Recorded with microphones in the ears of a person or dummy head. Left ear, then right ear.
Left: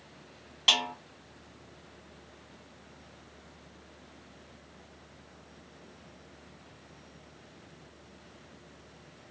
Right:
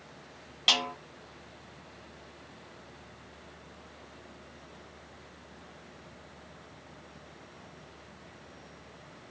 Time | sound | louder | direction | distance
0.7 | a snare drum | left 1 dB | centre (ahead or behind) | 1.1 m